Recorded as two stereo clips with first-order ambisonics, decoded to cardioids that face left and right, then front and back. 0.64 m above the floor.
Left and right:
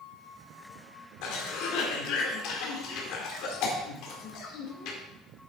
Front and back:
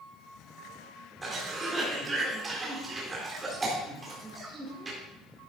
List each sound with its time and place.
1.2 s a cough: 105° left, 2.0 m